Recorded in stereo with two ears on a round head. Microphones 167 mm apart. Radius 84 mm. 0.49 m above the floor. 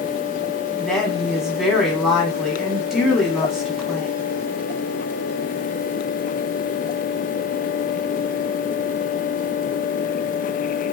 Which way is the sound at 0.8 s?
Centre (ahead or behind).